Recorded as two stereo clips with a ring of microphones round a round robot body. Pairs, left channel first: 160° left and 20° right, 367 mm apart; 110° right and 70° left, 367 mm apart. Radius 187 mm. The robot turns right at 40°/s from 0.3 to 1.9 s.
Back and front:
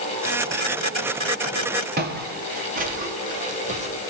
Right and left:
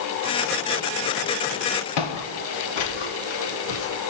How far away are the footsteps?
About 4 m.